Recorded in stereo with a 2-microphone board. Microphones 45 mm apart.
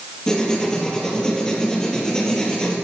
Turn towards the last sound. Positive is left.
turn(degrees=15)  # may be behind; listen again after turning